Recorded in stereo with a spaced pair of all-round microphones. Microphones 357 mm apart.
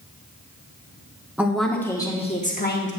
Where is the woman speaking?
5° right (ahead or behind), 1.3 m; by 2.9 s 30° left (ahead or behind), 1.3 m.